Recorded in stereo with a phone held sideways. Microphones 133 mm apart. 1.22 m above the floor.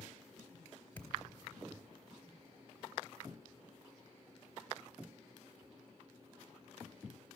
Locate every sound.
0.9 s a thud: 15° left (ahead or behind), 2.5 m